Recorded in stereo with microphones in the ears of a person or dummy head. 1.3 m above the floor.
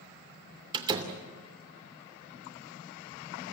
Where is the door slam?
25° right (ahead or behind), 3 m.